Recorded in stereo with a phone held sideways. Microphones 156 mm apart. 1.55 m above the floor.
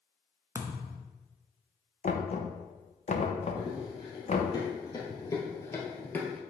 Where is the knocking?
45° left (ahead or behind), 0.9 m.